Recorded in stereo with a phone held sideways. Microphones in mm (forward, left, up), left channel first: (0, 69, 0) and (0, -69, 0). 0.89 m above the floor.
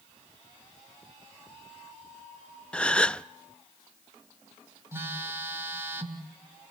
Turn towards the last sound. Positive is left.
turn(degrees=-15)  # may be behind; listen again after turning